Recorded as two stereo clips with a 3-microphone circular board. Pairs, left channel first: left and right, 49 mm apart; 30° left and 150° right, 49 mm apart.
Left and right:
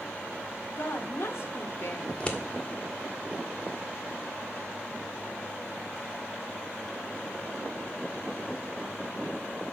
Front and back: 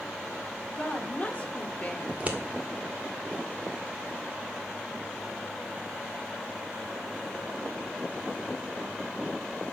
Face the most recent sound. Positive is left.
turn(degrees=155)